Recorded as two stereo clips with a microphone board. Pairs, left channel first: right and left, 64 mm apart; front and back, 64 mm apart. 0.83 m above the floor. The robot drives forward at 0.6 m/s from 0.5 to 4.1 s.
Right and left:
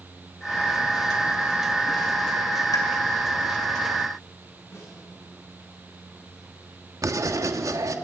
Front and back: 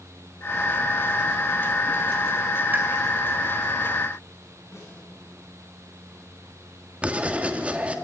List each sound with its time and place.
2.7 s a pop: 115° right, 3.5 m
4.7 s a snare drum: 45° right, 9.5 m
7.0 s writing: 115° left, 1.4 m